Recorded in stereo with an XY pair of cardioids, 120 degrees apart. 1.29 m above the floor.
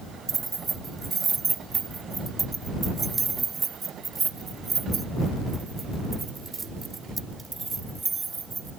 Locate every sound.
0.3 s keys jangling: 30° right